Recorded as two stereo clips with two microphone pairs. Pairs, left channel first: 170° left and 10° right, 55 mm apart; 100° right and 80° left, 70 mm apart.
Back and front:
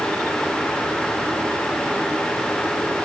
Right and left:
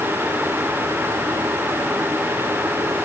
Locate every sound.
Only background noise.